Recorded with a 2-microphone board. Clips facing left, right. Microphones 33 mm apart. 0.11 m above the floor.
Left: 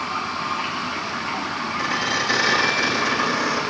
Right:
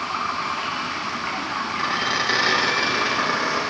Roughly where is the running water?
Right.